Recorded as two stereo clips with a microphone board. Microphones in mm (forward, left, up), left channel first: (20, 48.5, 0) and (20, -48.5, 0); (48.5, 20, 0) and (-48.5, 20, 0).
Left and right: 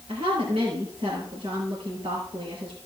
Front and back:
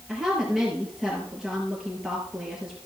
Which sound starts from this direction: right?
A woman speaking, at 0.1 s.